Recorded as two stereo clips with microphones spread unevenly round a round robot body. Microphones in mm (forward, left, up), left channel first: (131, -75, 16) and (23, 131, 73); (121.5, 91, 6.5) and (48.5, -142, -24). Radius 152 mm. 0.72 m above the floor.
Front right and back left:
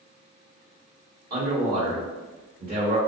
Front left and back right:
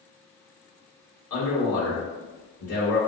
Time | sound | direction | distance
1.3 | a man speaking | 65° left | 1.7 m